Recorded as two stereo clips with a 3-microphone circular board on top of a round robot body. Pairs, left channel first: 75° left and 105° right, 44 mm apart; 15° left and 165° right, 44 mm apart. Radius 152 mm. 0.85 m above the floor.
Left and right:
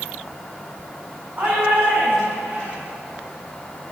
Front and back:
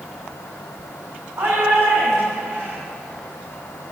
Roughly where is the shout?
Behind right.